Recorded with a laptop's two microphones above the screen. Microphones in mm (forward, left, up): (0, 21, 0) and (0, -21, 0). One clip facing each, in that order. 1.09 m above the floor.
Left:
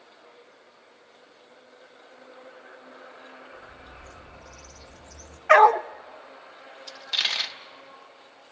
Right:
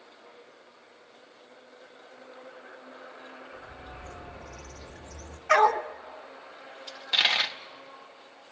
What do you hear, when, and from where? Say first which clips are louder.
3.5 s a bird: right 1 dB; 35° right (ahead or behind), 2 m
5.5 s a dog barking: left 6 dB; 35° left (ahead or behind), 0.6 m
6.9 s a dropped coin: right 3 dB; 20° right (ahead or behind), 0.9 m